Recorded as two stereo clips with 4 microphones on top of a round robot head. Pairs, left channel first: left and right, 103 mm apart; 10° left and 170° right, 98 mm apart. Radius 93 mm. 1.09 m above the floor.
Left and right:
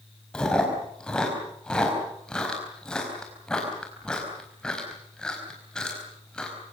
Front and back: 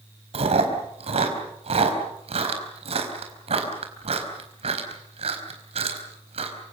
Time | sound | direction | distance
0.3 | chewing | 175° left | 4.5 m